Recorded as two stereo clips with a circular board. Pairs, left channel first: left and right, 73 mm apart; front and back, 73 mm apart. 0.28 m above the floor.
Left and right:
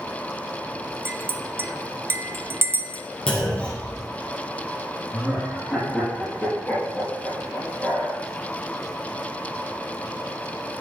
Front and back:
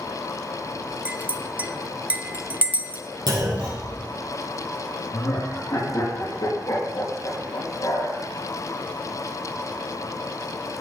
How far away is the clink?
About 0.7 m.